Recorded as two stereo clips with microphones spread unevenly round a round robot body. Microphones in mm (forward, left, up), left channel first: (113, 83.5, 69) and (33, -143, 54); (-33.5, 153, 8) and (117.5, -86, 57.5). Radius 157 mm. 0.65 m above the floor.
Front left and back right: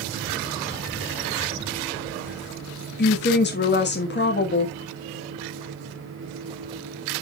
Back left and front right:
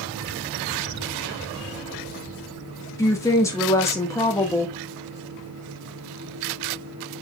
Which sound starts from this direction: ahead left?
A woman speaking, at 3.0 s.